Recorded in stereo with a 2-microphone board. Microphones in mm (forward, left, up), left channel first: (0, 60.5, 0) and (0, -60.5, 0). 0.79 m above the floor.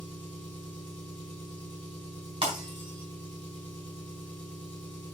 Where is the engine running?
40° right (ahead or behind), 4.5 m.